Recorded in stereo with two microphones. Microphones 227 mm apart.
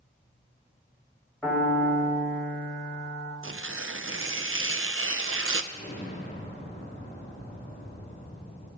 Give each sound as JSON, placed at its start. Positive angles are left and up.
{"t": 1.4, "sound": "a piano", "side_deg": 5, "distance_m": 4.0}
{"t": 3.4, "sound": "tearing paper", "side_deg": -60, "distance_m": 0.6}
{"t": 5.7, "sound": "an explosion", "side_deg": 30, "distance_m": 3.0}